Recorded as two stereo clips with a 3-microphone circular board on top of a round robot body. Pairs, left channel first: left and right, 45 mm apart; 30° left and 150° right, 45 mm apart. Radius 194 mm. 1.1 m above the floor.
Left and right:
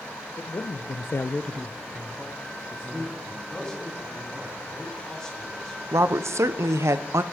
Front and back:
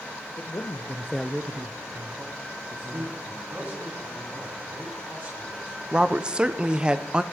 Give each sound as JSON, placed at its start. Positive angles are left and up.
{"t": 0.4, "sound": "a man speaking", "azimuth_deg": 60, "distance_m": 1.1}
{"t": 2.9, "sound": "a man speaking", "azimuth_deg": 165, "distance_m": 3.5}
{"t": 5.9, "sound": "a woman speaking", "azimuth_deg": -80, "distance_m": 0.5}